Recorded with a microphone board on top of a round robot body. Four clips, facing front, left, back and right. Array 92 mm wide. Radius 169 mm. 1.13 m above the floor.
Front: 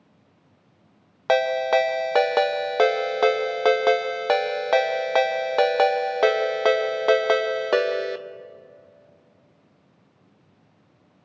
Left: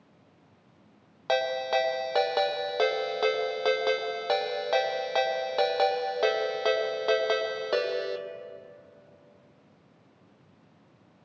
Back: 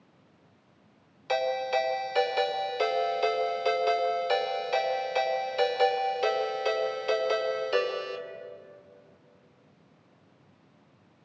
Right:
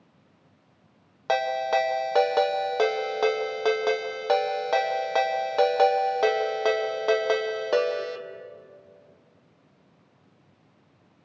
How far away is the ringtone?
About 1.1 m.